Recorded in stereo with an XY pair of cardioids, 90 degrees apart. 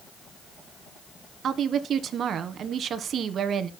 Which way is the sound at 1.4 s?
65° right.